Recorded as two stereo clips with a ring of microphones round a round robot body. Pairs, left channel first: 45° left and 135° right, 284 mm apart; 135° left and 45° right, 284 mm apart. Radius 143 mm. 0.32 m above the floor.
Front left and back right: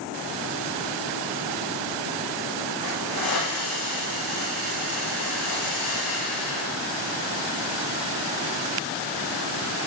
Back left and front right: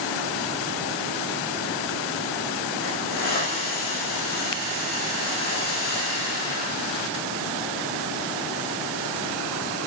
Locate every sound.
2.8 s a hiss: 75° left, 6.5 m